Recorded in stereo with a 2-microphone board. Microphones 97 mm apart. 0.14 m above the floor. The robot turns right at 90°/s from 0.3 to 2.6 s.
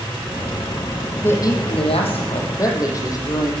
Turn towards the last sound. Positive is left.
turn(degrees=140)